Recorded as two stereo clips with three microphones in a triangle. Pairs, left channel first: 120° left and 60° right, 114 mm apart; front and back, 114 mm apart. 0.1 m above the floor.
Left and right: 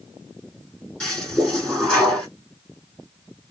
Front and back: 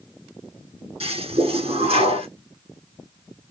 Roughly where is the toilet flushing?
Behind right.